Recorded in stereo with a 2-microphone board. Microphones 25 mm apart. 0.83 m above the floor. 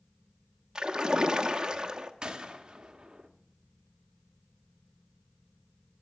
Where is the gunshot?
35° right (ahead or behind), 1.0 m.